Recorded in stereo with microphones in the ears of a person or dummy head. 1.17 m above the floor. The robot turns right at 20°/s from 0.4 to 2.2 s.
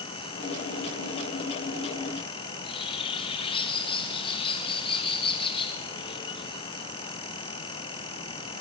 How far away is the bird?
About 1.4 m.